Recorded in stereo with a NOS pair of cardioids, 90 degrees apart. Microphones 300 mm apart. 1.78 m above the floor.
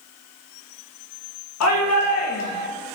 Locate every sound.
1.6 s a shout: 60° left, 1.8 m